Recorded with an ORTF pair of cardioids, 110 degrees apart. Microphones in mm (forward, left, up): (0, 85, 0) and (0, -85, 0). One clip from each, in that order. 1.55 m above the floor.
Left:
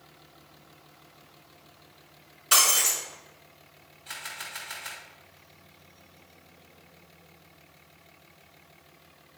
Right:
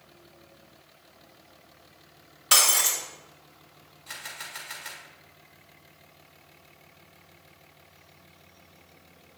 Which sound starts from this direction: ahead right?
Breaking glass, at 2.5 s.